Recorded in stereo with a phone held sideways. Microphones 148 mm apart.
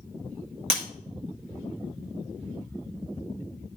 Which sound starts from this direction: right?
Breaking glass, at 0.7 s.